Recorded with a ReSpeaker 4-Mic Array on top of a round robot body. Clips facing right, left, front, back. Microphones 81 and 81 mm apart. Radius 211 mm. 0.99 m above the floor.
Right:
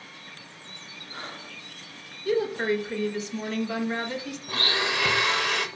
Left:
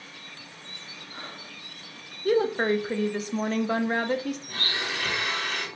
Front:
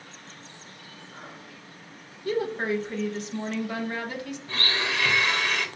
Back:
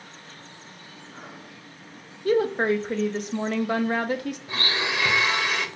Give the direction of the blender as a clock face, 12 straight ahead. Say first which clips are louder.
Right 4 dB, even; 4 o'clock.